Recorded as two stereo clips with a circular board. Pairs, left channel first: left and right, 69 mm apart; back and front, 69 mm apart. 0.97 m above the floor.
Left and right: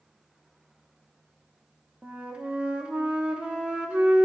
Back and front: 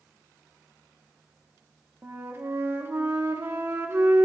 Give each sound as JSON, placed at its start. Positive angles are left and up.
{"t": 2.0, "sound": "a flute", "azimuth_deg": -25, "distance_m": 1.0}